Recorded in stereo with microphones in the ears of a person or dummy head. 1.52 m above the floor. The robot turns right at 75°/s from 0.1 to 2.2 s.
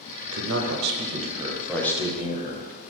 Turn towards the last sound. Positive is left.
turn(degrees=40)